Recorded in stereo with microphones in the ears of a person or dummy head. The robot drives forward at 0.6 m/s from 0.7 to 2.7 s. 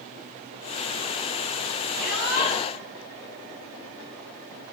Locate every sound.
2.0 s a shout: 55° left (ahead or behind), 9.5 m